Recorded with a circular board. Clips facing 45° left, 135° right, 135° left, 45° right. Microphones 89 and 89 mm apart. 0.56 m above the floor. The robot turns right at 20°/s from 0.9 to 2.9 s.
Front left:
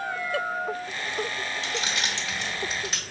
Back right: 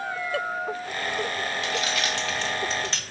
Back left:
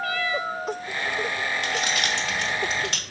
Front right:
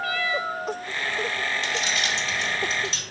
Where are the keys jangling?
100° left, 0.7 m; by 3.0 s 125° left, 0.7 m.